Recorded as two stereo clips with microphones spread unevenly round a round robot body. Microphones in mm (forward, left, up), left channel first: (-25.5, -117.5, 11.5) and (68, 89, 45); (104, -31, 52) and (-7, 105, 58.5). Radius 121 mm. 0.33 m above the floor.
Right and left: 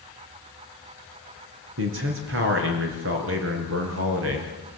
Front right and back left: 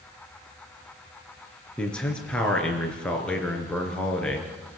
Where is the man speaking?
35° left, 5 m.